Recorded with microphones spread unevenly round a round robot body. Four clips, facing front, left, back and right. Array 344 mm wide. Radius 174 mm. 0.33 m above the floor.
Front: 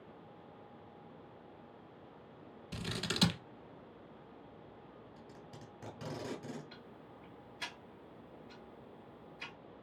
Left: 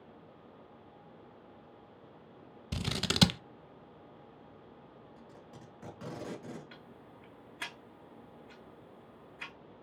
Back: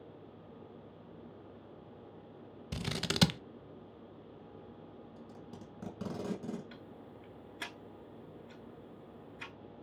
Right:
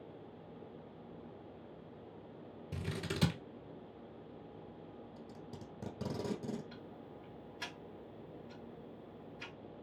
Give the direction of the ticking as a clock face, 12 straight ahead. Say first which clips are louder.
Right 2 dB, back 3 dB; 7 o'clock.